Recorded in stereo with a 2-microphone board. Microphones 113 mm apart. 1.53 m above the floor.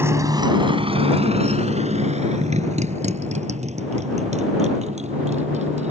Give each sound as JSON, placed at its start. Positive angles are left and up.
{"t": 0.0, "sound": "a motorcycle", "side_deg": -20}